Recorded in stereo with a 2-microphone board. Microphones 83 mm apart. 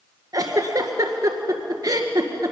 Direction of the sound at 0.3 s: 50° right (ahead or behind).